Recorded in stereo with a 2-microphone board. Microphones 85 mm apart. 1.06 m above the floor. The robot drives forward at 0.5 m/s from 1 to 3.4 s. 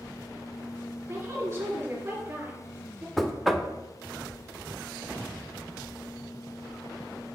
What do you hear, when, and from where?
1.1 s a woman speaking: 30° right (ahead or behind), 3 m; by 3.1 s 25° right (ahead or behind), 4 m
3.2 s knocking: centre (ahead or behind), 0.9 m